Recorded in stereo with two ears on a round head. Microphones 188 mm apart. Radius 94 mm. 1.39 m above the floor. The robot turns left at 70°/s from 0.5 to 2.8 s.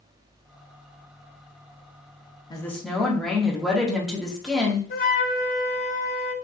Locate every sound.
2.5 s a woman speaking: 20° left (ahead or behind), 0.7 m; by 4.8 s centre (ahead or behind), 0.7 m
4.9 s a flute: 45° left (ahead or behind), 0.6 m